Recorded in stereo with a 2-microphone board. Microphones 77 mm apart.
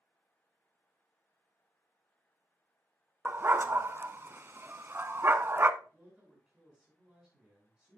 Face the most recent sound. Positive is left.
turn(degrees=-10)  # may be behind; listen again after turning